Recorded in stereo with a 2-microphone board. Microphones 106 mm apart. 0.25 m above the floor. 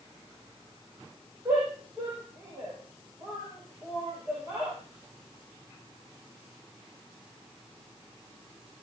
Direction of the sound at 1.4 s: 30° right (ahead or behind).